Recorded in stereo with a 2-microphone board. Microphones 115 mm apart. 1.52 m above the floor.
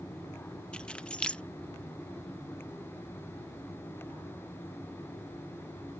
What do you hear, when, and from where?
0.7 s keys jangling: 10° left (ahead or behind)